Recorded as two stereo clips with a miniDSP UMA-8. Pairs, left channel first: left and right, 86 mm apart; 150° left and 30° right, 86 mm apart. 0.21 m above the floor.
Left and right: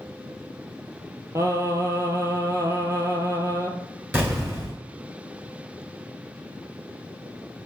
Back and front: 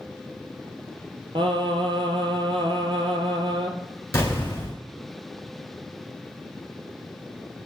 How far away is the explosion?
About 1.7 m.